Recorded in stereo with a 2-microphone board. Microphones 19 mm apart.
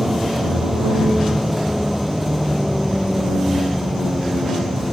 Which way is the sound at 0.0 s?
15° right (ahead or behind).